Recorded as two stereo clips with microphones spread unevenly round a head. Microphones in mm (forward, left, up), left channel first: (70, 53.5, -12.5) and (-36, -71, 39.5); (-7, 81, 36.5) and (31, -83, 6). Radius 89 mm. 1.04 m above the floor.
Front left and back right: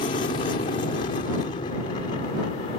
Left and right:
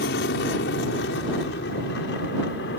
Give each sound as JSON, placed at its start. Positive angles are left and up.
{"t": 0.0, "sound": "an aircraft", "azimuth_deg": 100}